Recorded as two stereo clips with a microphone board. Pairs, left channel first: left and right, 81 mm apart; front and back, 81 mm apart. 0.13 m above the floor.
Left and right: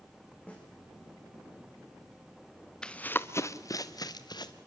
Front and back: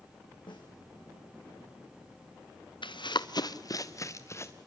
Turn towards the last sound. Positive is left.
turn(degrees=55)